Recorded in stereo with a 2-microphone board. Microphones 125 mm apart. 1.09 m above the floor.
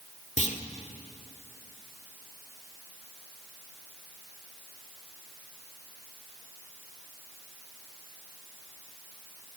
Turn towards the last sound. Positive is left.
turn(degrees=65)  # may be behind; listen again after turning